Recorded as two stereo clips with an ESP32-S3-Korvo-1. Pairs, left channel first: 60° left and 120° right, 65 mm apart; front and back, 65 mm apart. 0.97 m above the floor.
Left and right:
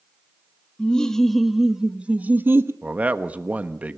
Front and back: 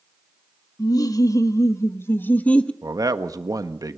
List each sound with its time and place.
0.8 s laughter: 15° right, 1.5 m; by 2.7 s 75° right, 1.0 m
2.8 s a man speaking: 175° left, 1.1 m